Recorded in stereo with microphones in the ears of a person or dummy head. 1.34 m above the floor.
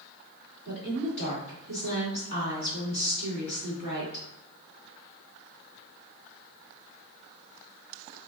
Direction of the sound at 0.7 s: 40° left (ahead or behind).